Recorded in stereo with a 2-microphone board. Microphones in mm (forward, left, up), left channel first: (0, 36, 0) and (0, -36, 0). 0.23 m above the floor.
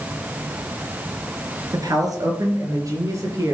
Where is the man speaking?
60° right (ahead or behind), 3.5 m; by 3.5 s 45° right (ahead or behind), 5 m.